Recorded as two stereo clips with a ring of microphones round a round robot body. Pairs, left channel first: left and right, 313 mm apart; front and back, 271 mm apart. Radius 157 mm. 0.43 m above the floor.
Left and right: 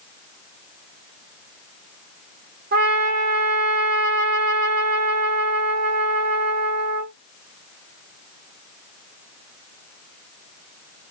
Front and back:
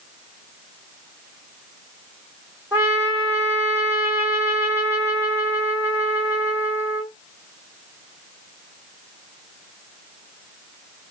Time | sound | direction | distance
2.7 | a trumpet | 105° right | 1.3 m